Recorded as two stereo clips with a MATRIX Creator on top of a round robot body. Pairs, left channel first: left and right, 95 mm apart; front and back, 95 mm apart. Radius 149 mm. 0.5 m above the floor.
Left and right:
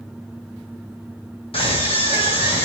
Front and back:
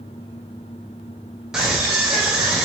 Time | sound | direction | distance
1.5 | a scream | 95° left | 2.5 m